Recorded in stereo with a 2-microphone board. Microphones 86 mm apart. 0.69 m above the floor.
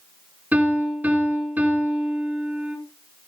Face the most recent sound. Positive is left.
turn(degrees=-20)  # may be behind; listen again after turning